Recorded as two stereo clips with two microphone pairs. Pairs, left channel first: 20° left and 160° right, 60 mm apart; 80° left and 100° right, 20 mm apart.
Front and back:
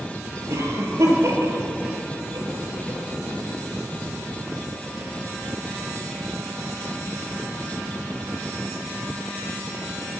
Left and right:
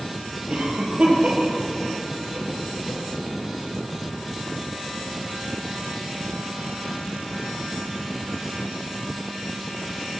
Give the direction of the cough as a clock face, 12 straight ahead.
5 o'clock.